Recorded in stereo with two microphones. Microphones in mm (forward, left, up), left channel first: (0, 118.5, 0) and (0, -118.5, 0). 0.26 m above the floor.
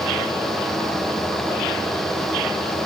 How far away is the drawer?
No drawer in this recording.